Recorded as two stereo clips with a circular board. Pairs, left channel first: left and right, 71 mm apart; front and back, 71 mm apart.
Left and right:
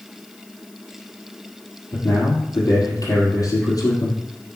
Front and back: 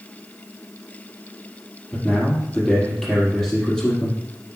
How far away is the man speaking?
About 4 m.